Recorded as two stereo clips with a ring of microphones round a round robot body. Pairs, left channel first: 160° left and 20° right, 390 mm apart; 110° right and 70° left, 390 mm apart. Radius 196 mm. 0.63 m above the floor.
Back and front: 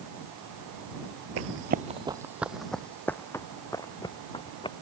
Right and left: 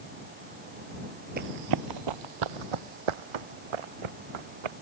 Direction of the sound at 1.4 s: 10° left.